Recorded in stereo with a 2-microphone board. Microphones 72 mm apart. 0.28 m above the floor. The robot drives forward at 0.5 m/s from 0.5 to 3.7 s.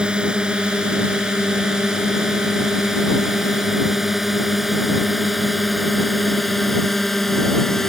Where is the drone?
15° right (ahead or behind); by 7.9 s 5° left (ahead or behind).